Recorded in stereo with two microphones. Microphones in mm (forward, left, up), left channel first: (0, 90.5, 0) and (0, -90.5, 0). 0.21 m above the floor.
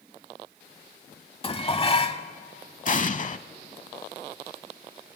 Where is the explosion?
45° left (ahead or behind), 0.6 m.